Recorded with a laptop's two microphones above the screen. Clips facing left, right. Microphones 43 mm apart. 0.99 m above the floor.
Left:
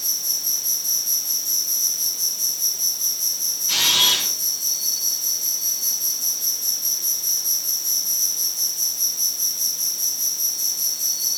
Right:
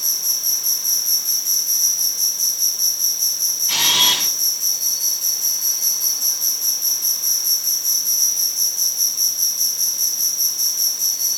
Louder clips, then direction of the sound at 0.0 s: Right 3 dB; 60° right (ahead or behind).